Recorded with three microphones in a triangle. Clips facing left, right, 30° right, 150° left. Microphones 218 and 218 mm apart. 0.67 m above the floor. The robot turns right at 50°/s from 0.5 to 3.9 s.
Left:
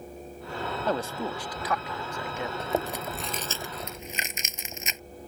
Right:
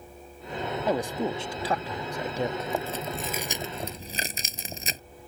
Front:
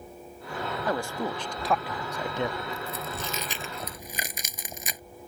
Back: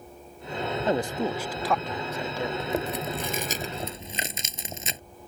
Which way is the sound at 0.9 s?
160° right.